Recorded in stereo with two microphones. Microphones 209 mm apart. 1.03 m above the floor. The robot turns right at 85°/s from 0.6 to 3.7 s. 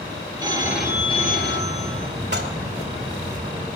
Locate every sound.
0.4 s a phone ringing: 20° right, 3.5 m; by 2.1 s 110° left, 3.5 m
2.3 s dishes clattering: 55° right (ahead or behind), 2.5 m; by 2.5 s 35° right (ahead or behind), 2.5 m